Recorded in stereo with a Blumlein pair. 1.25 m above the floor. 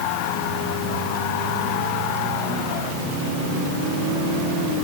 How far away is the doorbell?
I don't hear a doorbell.